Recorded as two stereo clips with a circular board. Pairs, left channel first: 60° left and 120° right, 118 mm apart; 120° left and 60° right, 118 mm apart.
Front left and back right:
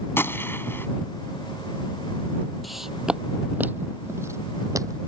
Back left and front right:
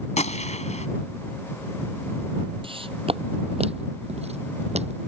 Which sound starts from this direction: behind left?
A gunshot, at 0.2 s.